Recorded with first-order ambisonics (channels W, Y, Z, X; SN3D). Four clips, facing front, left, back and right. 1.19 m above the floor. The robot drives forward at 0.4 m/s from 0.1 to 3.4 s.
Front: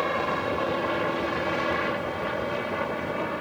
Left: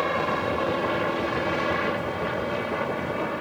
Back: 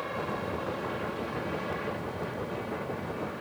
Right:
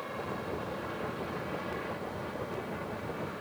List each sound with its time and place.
0.0 s a helicopter: 55° left; by 3.4 s 45° left